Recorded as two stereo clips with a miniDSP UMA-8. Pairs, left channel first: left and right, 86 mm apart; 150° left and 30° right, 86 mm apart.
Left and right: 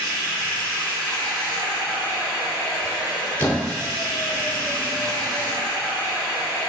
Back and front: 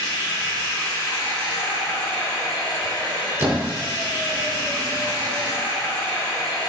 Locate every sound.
0.0 s running water: 175° left, 1.8 m
3.4 s a squeak: 30° left, 0.7 m